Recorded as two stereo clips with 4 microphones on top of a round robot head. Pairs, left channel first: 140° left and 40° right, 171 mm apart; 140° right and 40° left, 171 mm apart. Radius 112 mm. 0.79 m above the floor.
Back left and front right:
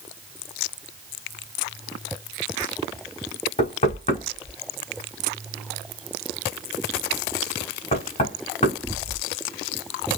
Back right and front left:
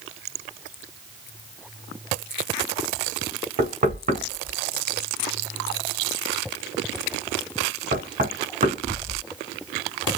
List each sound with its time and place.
3.6 s knocking: 90° left, 2.5 m